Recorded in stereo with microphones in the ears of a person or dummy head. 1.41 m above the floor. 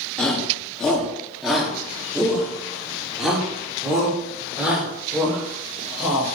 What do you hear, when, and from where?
0.2 s a shout: 5° left (ahead or behind), 3 m; by 6.3 s 10° right (ahead or behind), 6.5 m